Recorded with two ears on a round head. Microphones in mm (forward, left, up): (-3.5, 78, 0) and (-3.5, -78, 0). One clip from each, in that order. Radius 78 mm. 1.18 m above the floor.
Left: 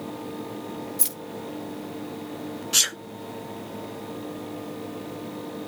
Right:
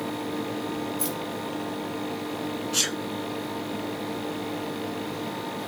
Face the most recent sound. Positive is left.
turn(degrees=30)  # may be behind; listen again after turning